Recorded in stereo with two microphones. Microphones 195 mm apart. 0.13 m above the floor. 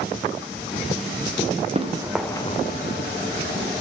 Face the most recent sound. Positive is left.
turn(degrees=85)